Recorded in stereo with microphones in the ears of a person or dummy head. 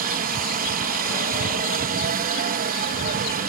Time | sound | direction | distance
0.0 | a helicopter | 40° right (ahead or behind) | ?